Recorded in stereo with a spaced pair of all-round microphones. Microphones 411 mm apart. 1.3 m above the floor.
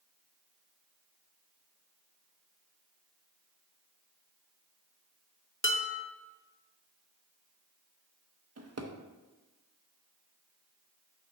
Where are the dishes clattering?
30° left (ahead or behind), 0.6 m.